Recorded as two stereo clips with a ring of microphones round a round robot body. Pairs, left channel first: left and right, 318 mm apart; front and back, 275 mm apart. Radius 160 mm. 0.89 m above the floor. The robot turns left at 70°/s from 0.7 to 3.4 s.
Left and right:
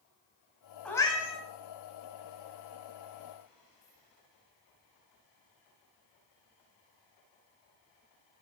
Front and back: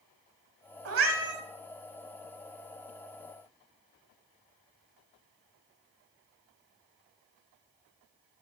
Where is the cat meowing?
175° left, 1.0 m; by 1.4 s 140° left, 1.0 m.